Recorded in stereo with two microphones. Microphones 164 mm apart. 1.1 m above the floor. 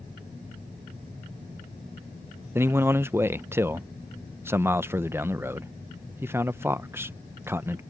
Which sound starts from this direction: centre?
A man speaking, at 2.5 s.